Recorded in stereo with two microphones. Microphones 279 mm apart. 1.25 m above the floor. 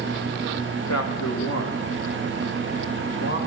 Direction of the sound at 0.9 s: 80° left.